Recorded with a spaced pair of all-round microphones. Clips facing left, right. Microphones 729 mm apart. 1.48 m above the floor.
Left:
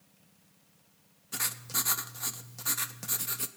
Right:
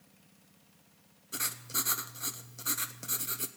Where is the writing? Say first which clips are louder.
Right 1 dB; 35° left (ahead or behind), 0.6 m.